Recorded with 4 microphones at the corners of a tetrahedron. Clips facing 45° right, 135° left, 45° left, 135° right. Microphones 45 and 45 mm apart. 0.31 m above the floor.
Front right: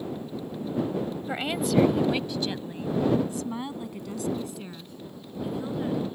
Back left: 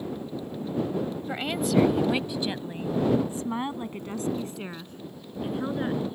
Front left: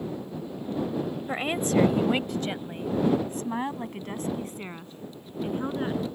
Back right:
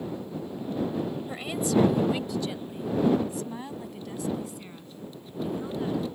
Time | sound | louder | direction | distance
1.3 | a woman speaking | even, front left 2 dB | 30° left | ?